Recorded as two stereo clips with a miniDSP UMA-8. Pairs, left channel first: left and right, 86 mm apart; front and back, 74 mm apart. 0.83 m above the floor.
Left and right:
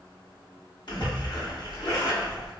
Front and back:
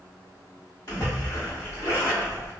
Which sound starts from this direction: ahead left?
A splash, at 0.9 s.